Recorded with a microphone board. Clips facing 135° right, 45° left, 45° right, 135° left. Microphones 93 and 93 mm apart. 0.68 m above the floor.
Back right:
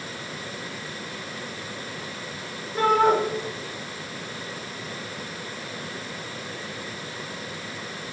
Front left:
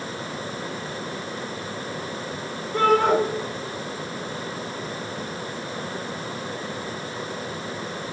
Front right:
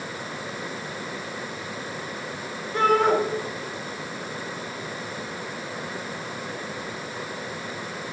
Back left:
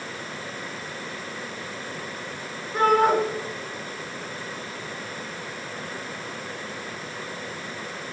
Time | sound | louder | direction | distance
2.7 | a shout | front left 1 dB, back left 1 dB | 45° left | 9.5 m